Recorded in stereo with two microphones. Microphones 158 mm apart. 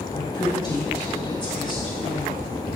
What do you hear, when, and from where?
0.1 s a woman speaking: 30° left (ahead or behind), 2.5 m